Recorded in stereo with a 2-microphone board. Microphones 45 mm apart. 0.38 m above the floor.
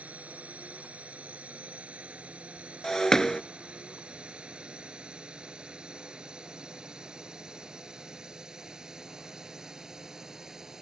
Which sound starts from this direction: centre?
Breaking glass, at 2.8 s.